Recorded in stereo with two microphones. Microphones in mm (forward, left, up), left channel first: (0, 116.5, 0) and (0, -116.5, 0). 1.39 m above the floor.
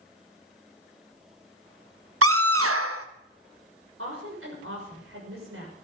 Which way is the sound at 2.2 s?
75° right (ahead or behind).